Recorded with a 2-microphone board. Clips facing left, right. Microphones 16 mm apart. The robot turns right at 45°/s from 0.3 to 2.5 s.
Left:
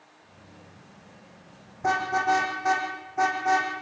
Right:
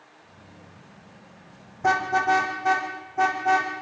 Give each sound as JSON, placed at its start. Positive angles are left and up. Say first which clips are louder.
{"t": 1.8, "sound": "a car horn", "louder": "right 3 dB", "side_deg": -20, "distance_m": 5.0}